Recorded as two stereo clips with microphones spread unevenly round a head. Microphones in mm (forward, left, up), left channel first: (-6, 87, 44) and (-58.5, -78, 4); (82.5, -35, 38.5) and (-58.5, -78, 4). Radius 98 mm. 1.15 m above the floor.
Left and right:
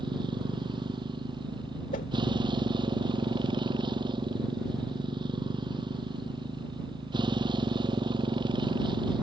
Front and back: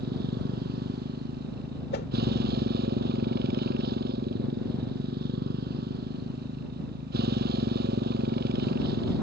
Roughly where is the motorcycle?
Behind.